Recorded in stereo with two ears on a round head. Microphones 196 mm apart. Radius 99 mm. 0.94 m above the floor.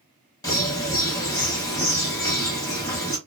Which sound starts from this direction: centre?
A bird, at 0.4 s.